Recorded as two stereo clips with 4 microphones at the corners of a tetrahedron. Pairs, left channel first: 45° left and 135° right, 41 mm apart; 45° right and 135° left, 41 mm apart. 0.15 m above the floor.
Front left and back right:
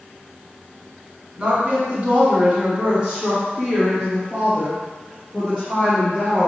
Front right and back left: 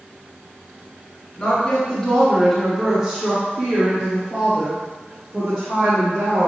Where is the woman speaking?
95° right, 1.9 m; by 6.5 s 125° left, 3.5 m.